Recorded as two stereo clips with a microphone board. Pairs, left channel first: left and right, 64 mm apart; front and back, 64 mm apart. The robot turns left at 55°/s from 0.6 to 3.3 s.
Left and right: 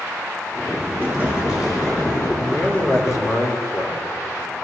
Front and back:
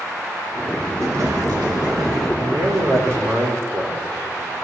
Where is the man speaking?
175° left, 4 m; by 4.5 s 125° left, 4 m.